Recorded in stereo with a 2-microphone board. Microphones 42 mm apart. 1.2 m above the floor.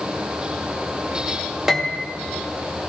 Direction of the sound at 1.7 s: 10° right (ahead or behind).